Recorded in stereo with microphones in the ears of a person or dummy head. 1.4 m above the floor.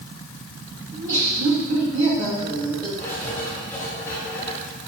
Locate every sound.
0.9 s laughter: 65° right (ahead or behind), 2.5 m; by 2.9 s 25° right (ahead or behind), 2.5 m
3.0 s writing: 15° left (ahead or behind), 2.5 m